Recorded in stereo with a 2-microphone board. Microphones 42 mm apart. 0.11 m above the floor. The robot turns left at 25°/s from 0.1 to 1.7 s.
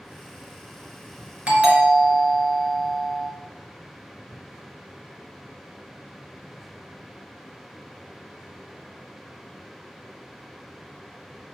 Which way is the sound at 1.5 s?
30° right (ahead or behind).